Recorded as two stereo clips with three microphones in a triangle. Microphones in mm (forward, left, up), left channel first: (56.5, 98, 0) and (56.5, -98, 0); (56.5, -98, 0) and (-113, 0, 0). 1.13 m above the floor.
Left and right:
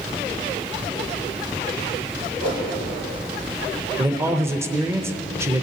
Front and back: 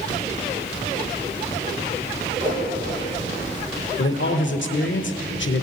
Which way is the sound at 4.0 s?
10° right.